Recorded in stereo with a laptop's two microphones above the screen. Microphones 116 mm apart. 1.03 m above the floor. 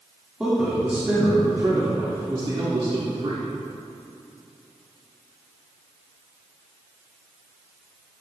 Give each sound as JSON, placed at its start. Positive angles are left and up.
{"t": 0.4, "sound": "a man speaking", "side_deg": -10, "distance_m": 2.0}